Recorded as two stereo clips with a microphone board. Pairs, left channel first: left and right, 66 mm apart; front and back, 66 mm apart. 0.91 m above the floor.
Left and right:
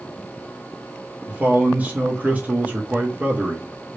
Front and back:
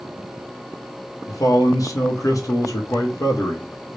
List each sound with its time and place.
1.3 s a man speaking: 25° right, 0.7 m